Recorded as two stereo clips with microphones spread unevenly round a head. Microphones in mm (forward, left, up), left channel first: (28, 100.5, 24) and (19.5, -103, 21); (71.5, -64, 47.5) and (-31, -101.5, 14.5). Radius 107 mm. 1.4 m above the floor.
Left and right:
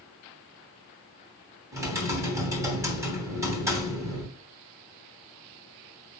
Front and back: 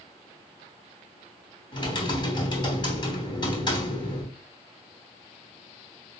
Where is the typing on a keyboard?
15° right, 3 m.